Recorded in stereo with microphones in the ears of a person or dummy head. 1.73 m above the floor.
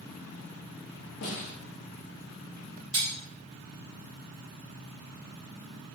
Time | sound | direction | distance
1.2 | a snare drum | 50° left (ahead or behind) | 0.8 m
2.9 | cutlery clinking | 35° right (ahead or behind) | 1.1 m